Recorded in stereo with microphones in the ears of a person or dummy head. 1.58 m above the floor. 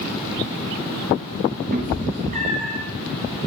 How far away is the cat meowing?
About 3 m.